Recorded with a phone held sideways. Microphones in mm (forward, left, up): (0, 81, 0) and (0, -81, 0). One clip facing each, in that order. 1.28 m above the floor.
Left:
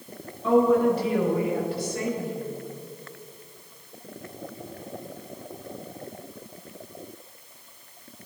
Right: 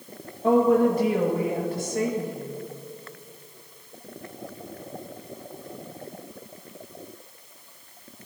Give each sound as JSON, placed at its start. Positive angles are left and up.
{"t": 0.4, "sound": "a woman speaking", "side_deg": -50, "distance_m": 2.0}